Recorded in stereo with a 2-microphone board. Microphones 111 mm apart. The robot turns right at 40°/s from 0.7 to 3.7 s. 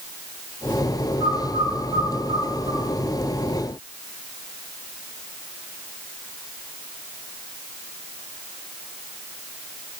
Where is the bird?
75° right (ahead or behind), 2.5 m; by 2.9 s 40° right (ahead or behind), 2.5 m.